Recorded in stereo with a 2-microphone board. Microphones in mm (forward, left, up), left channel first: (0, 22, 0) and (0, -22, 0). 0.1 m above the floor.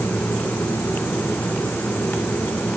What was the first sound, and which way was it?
Only background noise.